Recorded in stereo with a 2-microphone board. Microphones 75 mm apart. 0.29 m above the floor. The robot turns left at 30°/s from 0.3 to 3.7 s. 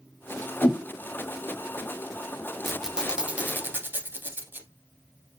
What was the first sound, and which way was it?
A whoosh, 20° left (ahead or behind).